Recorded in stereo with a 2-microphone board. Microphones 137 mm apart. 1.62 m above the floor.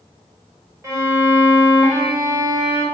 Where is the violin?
25° right (ahead or behind), 1.6 m.